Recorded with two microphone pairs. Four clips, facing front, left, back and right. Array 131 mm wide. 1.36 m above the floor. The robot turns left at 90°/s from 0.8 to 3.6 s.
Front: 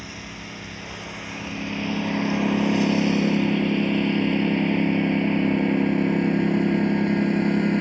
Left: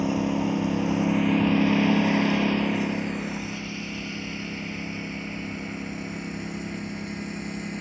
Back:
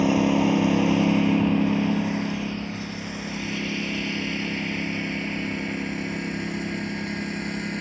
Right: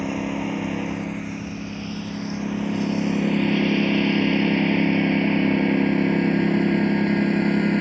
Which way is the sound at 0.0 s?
Straight behind.